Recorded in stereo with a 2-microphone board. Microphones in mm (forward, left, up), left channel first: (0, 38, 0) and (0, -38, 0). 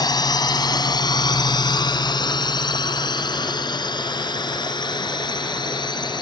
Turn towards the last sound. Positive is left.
turn(degrees=80)